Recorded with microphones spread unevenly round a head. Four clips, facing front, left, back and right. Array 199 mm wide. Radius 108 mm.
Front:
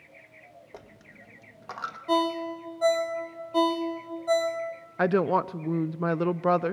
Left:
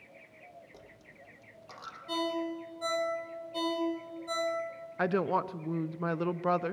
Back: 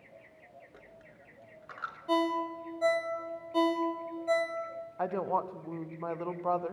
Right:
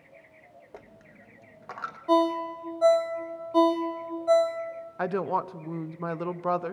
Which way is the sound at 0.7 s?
25° right.